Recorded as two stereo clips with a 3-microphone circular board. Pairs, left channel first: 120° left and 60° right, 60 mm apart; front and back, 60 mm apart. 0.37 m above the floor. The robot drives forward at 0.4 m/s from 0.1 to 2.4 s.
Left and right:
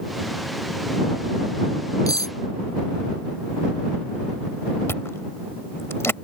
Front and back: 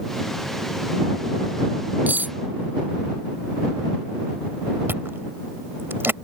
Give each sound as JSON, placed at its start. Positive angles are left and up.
{"t": 2.1, "sound": "cutlery clinking", "azimuth_deg": 125}
{"t": 4.9, "sound": "chewing", "azimuth_deg": 145}